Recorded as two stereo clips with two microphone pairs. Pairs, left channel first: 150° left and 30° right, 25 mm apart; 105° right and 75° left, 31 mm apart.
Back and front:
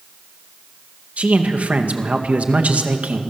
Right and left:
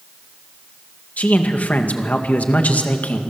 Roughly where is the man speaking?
Right.